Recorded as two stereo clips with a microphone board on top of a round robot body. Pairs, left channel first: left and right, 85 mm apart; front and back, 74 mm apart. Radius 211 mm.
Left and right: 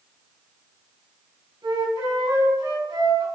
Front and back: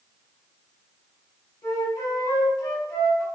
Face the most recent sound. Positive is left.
turn(degrees=-50)